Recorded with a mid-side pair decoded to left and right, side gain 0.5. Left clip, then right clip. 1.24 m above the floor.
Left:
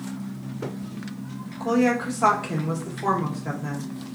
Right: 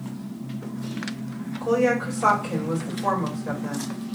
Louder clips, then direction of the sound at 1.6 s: Right 1 dB; 65° left.